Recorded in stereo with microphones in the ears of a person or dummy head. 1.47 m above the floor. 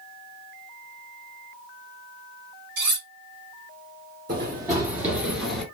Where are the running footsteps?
25° right (ahead or behind), 1.5 m; by 5.7 s centre (ahead or behind), 1.6 m.